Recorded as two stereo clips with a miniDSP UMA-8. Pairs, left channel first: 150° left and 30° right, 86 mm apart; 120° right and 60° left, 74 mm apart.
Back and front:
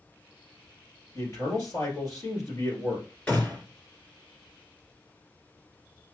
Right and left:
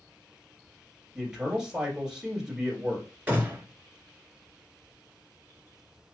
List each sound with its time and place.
1.1 s a man speaking: 140° left, 1.5 m
3.3 s a gunshot: 100° left, 1.5 m